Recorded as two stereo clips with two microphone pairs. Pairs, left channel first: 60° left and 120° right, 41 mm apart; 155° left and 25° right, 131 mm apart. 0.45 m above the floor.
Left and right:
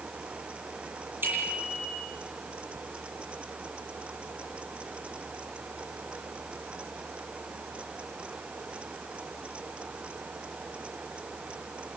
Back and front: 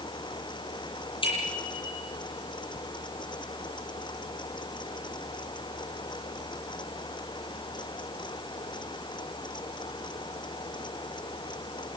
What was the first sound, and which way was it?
A bicycle bell, 155° right.